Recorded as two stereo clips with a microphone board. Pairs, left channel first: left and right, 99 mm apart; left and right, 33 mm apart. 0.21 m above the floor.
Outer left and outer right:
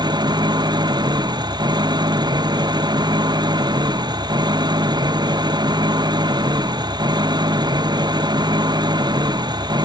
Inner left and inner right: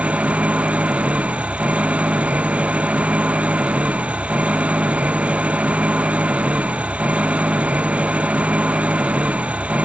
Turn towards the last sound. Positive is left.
turn(degrees=-45)  # may be behind; listen again after turning